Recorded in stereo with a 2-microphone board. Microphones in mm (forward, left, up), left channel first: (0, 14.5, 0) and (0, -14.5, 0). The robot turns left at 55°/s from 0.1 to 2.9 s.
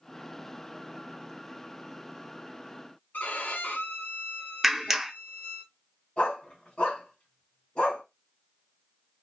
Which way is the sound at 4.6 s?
10° right (ahead or behind).